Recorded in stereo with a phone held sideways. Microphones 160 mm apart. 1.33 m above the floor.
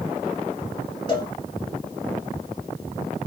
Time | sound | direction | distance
1.1 | a cowbell | 30° left (ahead or behind) | 1.2 m